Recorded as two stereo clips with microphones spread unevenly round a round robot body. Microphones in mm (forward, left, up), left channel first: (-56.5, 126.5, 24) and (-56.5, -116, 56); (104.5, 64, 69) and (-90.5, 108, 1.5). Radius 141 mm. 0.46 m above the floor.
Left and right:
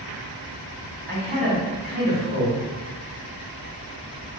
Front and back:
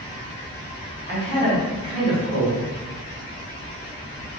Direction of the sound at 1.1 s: 70° right.